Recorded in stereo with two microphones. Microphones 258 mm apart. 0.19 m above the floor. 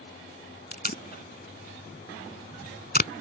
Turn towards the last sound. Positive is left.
turn(degrees=40)  # may be behind; listen again after turning